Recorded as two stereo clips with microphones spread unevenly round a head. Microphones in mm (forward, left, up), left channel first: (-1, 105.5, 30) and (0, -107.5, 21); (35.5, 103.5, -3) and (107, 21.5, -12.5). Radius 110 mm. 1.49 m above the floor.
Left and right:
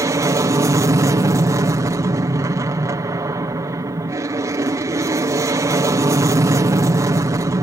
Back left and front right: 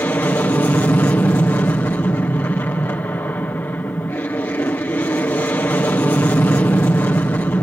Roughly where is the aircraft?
Behind.